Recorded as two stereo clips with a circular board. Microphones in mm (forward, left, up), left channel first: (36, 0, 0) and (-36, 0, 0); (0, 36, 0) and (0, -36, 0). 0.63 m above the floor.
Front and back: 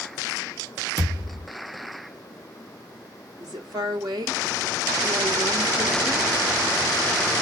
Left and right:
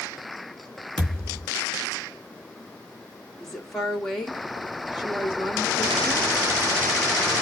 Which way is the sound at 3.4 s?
175° left.